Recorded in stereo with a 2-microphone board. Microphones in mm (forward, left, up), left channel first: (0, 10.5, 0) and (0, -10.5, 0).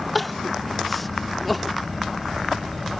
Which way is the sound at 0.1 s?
5° left (ahead or behind).